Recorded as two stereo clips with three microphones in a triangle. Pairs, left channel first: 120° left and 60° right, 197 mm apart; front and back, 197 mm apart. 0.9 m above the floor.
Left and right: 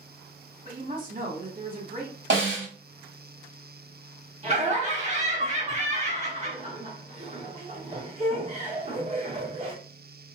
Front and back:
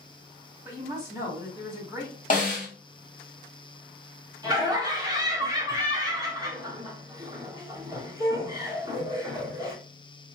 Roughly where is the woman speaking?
Right.